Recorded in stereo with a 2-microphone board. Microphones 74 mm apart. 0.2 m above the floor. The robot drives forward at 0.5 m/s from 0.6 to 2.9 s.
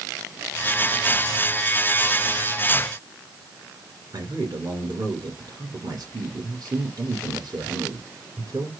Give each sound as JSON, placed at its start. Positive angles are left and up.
{"t": 4.1, "sound": "a man speaking", "side_deg": -65, "distance_m": 2.5}